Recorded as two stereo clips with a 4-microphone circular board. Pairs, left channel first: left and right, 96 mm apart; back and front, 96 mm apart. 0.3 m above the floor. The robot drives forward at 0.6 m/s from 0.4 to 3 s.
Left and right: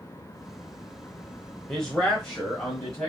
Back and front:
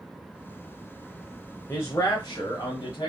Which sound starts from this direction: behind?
A man speaking, at 1.7 s.